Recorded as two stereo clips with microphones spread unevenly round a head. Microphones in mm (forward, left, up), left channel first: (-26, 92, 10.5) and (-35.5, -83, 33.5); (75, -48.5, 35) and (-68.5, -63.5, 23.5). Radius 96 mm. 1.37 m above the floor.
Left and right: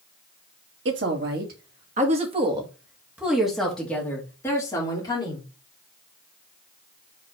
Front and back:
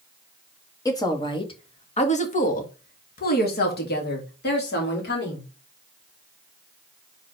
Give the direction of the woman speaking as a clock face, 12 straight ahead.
2 o'clock.